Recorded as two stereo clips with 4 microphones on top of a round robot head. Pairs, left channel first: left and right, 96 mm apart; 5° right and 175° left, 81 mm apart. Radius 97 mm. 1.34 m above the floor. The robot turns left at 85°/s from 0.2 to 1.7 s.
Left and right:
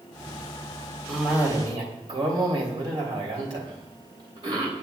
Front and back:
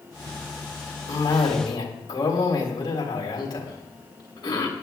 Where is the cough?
5° left, 3 m; by 4.8 s 50° right, 3 m.